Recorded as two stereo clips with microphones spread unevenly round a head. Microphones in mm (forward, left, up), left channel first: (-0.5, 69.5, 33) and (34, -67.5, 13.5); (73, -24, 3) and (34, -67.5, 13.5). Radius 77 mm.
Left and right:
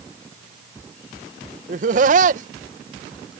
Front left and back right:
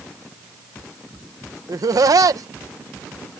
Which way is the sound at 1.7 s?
115° right.